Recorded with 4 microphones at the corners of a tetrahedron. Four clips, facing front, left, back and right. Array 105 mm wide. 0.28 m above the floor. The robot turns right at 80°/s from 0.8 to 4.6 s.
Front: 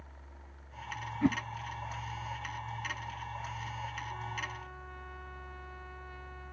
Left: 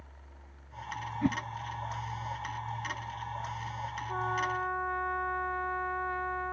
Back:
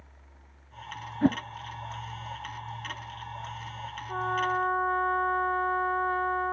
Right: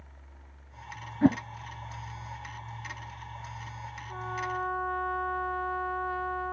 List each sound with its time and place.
1.2 s a whoosh: 125° right; by 1.4 s 115° right
4.1 s a trumpet: 150° left; by 6.5 s 170° right